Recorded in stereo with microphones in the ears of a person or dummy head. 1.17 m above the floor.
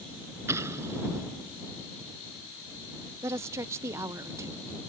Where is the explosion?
15° right (ahead or behind).